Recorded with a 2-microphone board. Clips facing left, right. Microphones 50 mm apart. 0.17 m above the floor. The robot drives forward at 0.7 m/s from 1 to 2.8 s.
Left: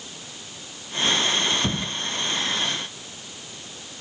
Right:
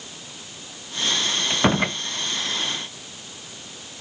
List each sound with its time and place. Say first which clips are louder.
1.5 s a door slam: right 5 dB; 55° right (ahead or behind)